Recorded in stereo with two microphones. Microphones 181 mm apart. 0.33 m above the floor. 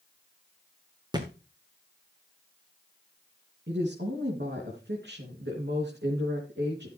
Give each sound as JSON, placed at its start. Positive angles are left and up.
{"t": 1.1, "sound": "a thud", "side_deg": -25, "distance_m": 2.0}
{"t": 3.7, "sound": "a woman speaking", "side_deg": -75, "distance_m": 3.5}